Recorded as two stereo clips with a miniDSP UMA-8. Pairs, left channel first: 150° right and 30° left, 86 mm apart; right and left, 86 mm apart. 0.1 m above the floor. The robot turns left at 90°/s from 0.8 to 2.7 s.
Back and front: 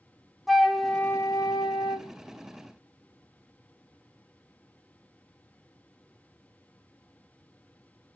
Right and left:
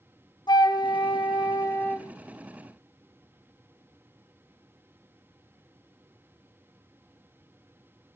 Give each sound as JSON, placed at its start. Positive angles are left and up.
{"t": 0.5, "sound": "a flute", "azimuth_deg": -60, "distance_m": 0.5}